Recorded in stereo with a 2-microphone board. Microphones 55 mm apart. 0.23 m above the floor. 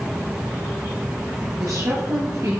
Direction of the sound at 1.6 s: 60° right (ahead or behind).